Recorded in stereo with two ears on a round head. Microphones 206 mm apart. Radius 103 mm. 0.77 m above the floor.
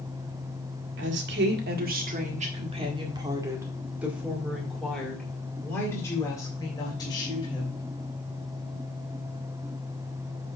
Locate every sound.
1.0 s a woman speaking: 55° right (ahead or behind), 1.8 m; by 7.8 s 20° left (ahead or behind), 3.5 m